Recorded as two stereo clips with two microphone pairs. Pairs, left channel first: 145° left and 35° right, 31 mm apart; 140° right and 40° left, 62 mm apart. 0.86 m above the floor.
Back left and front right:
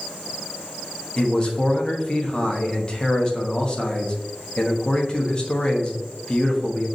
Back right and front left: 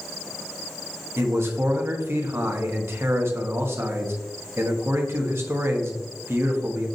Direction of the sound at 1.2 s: 80° left.